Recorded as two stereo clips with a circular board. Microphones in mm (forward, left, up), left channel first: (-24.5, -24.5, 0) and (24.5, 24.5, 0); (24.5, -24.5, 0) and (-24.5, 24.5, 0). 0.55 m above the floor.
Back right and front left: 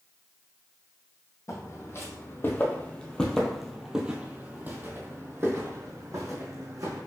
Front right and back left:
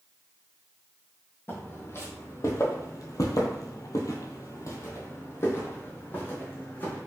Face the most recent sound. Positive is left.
turn(degrees=15)